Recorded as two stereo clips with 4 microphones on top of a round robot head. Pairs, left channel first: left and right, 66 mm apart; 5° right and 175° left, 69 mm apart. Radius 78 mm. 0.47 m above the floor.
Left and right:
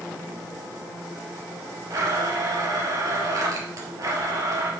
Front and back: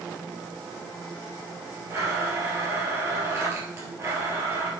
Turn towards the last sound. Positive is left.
turn(degrees=-125)